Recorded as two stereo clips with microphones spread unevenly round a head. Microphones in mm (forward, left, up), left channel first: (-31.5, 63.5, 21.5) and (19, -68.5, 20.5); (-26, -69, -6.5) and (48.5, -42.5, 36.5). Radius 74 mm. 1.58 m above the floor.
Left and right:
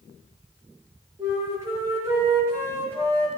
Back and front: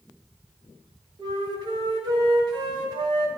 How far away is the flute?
About 6.5 m.